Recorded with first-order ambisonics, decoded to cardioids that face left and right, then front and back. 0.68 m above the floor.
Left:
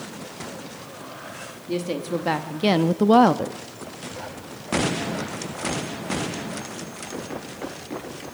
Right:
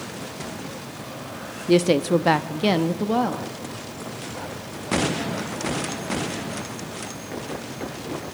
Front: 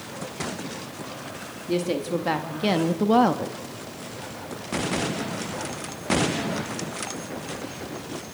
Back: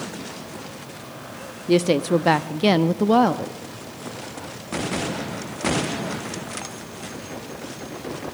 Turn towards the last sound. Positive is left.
turn(degrees=85)